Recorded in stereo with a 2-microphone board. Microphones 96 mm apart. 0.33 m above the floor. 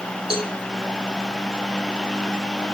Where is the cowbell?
80° right, 1.6 m.